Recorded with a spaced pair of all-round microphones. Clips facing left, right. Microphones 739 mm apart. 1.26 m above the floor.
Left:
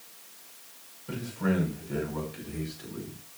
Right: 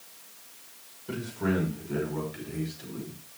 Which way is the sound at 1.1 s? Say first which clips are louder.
Even; 15° left (ahead or behind).